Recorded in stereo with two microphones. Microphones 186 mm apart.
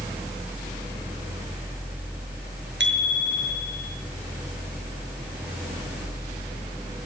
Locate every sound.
2.8 s a bicycle bell: 80° right, 6.5 m